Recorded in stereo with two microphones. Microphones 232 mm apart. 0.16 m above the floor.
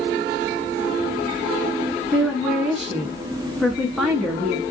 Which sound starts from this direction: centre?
A woman speaking, at 2.1 s.